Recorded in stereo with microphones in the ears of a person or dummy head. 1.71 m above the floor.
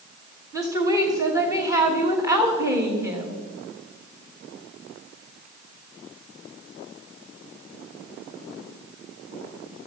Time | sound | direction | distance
0.5 | a woman speaking | 15° right (ahead or behind) | 3 m